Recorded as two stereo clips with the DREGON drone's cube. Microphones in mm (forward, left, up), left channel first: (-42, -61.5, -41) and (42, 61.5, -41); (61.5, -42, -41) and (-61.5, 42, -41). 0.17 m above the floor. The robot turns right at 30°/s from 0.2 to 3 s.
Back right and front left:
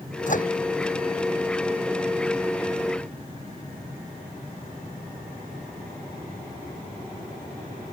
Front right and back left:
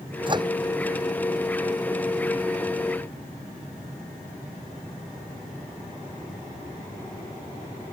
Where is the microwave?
155° right; by 0.5 s 150° right.